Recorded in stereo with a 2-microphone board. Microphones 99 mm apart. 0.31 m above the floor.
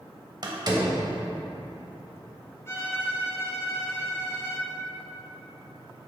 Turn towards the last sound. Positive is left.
turn(degrees=30)  # may be behind; listen again after turning